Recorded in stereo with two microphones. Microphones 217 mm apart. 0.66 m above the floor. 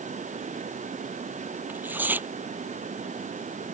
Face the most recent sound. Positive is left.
turn(degrees=-10)  # may be behind; listen again after turning